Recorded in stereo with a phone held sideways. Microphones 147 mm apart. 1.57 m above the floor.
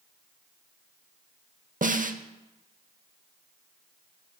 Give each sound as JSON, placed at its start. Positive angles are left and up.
{"t": 1.8, "sound": "a snare drum", "side_deg": -65, "distance_m": 0.7}